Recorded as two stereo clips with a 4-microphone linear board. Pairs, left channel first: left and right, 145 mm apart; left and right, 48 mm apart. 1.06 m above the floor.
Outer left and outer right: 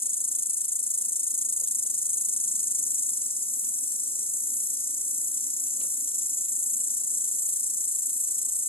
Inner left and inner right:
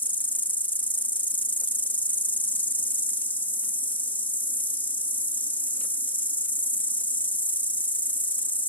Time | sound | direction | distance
0.0 | an insect | 40° left (ahead or behind) | ?